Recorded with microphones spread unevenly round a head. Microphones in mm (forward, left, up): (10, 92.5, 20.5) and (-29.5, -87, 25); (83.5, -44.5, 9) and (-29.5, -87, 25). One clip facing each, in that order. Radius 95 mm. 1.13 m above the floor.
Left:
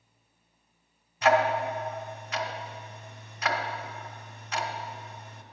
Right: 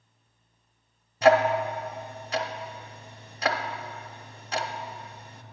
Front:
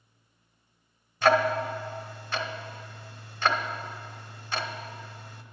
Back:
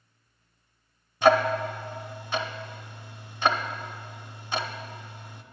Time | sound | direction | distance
1.2 | ticking | 85° right | 0.7 m